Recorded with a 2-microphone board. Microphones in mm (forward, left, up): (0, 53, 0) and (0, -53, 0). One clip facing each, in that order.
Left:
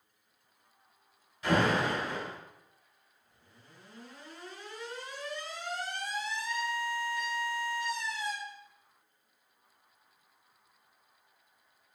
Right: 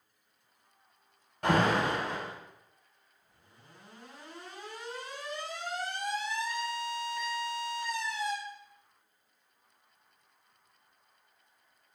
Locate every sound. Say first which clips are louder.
1.4 s an alarm: right 1 dB; 65° right (ahead or behind), 3.5 m